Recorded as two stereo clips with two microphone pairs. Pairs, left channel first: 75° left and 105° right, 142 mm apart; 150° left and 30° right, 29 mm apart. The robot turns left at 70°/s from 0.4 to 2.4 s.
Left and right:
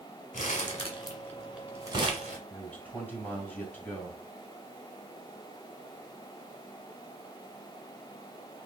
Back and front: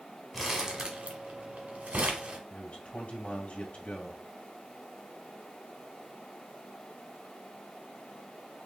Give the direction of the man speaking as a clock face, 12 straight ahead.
7 o'clock.